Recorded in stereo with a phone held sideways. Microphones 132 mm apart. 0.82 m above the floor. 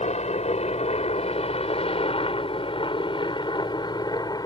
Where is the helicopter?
65° left (ahead or behind); by 4.5 s 35° left (ahead or behind).